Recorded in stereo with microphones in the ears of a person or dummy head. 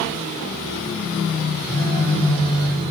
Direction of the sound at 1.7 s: 40° left (ahead or behind).